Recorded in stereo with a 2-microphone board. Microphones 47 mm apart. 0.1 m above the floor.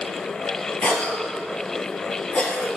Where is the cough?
25° left (ahead or behind), 1.8 m.